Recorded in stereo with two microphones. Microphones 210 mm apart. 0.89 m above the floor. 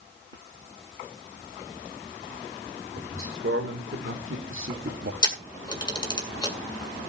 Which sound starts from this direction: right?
A man speaking, at 3.0 s.